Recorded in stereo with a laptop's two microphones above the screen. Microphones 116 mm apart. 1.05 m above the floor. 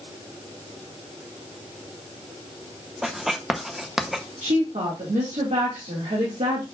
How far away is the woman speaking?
About 1.6 m.